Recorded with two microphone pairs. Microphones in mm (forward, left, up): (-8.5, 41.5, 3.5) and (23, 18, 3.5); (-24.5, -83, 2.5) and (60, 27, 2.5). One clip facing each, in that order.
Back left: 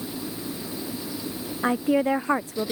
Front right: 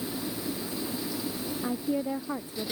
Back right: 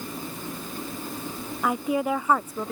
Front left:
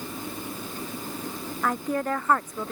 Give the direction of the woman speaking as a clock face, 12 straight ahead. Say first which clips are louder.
Back left 9 dB, back right 2 dB; 7 o'clock.